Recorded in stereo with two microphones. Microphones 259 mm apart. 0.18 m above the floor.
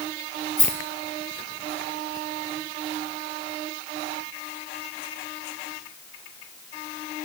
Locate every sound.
0.6 s a rattle: 65° left (ahead or behind), 1.5 m